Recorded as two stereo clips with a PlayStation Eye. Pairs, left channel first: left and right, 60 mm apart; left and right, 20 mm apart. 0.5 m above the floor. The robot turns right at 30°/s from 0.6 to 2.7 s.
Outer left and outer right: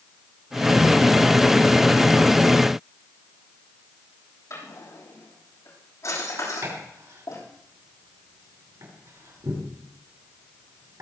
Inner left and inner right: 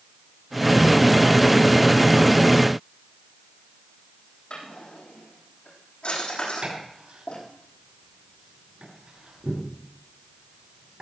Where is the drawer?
55° left (ahead or behind), 7.5 m.